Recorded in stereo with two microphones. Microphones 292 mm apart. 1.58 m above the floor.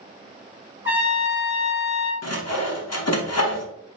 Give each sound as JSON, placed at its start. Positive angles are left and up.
{"t": 0.8, "sound": "a trumpet", "side_deg": -5, "distance_m": 1.2}
{"t": 2.2, "sound": "sawing", "side_deg": 55, "distance_m": 0.7}